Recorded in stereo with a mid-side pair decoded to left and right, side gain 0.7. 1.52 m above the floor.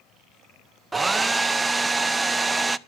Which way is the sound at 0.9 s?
15° right.